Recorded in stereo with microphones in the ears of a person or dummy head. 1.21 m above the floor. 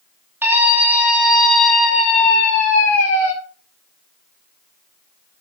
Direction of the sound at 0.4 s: 10° right (ahead or behind).